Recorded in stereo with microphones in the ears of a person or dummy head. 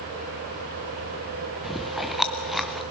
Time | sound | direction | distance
1.6 | chewing | centre (ahead or behind) | 0.7 m